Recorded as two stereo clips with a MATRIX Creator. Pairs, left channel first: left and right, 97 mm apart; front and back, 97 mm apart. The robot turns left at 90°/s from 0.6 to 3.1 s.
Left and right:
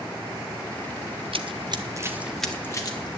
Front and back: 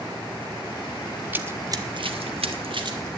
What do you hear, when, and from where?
1.3 s running footsteps: 110° right, 0.8 m; by 3.1 s 120° left, 3 m